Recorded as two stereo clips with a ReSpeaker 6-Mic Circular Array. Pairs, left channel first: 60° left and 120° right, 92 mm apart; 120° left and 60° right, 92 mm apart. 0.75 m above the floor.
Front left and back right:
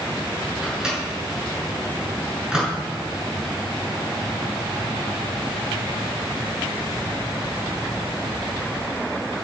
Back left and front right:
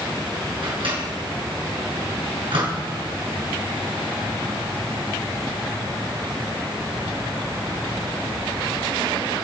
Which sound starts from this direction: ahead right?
A microwave, at 0.6 s.